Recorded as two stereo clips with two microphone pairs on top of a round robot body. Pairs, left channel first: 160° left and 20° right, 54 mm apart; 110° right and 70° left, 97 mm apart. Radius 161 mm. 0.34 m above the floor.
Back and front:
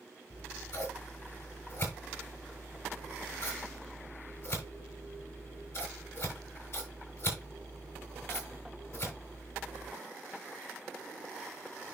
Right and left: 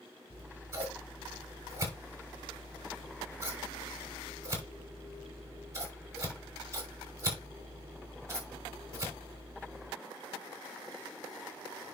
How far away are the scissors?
About 6 m.